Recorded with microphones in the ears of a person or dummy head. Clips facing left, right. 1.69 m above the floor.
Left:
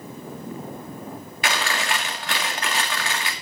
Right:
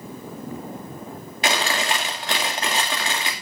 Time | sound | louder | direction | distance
1.4 | chewing | right 3 dB | 20° right (ahead or behind) | 2.5 m